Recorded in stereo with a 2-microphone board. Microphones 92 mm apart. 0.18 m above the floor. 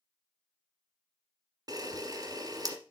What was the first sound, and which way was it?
A camera shutter, 45° right (ahead or behind).